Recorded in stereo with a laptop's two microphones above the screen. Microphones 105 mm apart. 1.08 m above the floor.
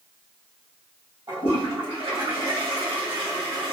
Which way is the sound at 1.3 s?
55° right (ahead or behind).